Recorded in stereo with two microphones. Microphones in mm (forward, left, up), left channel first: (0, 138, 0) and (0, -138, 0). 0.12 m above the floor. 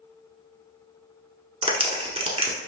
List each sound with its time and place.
1.6 s a clap: 20° right (ahead or behind), 0.9 m